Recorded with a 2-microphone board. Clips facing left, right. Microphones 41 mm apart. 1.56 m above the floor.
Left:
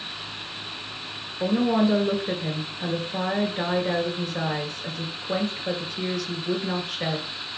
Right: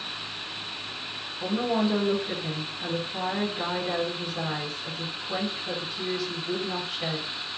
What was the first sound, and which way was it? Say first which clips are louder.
A woman speaking: left 4 dB; 75° left (ahead or behind).